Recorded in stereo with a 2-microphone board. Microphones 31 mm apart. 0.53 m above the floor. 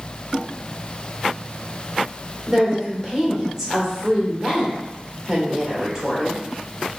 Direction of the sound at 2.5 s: 10° right (ahead or behind).